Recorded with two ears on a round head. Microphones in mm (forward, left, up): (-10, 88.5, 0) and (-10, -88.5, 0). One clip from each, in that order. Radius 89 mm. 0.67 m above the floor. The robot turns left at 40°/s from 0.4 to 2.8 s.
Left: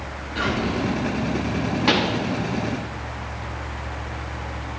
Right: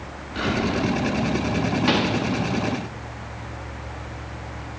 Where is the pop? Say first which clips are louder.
Left 3 dB; 15° left (ahead or behind), 1.1 m; by 2.2 s 20° left (ahead or behind), 1.1 m.